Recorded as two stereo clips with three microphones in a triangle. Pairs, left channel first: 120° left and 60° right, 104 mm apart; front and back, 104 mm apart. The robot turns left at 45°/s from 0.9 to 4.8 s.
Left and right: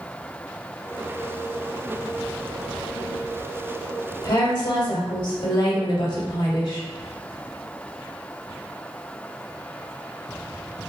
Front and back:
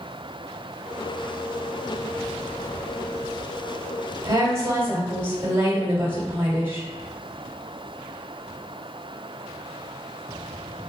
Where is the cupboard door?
I don't hear a cupboard door.